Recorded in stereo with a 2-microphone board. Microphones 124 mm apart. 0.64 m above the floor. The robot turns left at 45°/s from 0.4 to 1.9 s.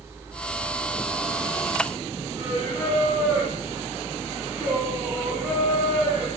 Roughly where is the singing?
Centre.